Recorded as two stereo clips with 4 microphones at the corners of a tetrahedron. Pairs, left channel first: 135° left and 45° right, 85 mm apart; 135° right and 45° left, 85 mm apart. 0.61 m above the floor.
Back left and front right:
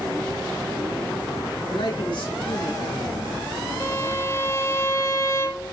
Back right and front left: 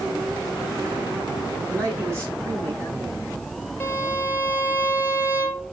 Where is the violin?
175° left, 1.4 m.